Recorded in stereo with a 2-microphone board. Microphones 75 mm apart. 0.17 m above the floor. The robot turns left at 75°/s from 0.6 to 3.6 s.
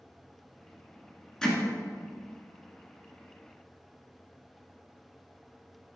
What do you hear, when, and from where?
1.4 s hammering: 10° left (ahead or behind), 1.5 m; by 1.6 s centre (ahead or behind), 1.5 m